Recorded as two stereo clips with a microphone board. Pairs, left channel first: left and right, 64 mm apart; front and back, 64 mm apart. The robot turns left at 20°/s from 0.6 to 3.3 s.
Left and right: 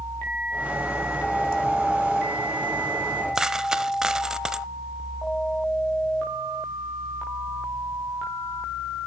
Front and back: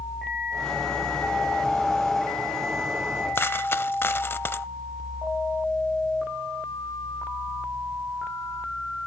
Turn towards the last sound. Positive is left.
turn(degrees=-15)